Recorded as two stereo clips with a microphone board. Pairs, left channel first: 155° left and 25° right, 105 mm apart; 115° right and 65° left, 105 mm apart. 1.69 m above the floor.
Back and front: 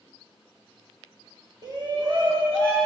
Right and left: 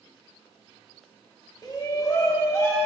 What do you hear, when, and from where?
1.6 s a shout: 65° right, 1.2 m; by 2.9 s 50° right, 1.9 m